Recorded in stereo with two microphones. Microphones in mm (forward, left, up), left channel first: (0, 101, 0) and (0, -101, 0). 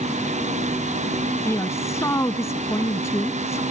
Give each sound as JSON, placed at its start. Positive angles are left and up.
{"t": 1.4, "sound": "a woman speaking", "side_deg": 15}